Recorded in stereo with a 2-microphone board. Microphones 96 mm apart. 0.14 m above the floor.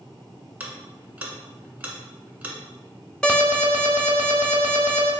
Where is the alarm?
10° left (ahead or behind), 0.8 m.